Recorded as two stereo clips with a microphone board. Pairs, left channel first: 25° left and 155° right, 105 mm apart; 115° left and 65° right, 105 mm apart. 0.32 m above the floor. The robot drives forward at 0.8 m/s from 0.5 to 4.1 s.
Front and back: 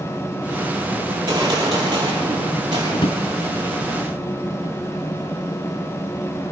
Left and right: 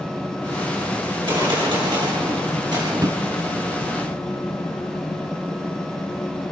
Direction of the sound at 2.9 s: 10° right.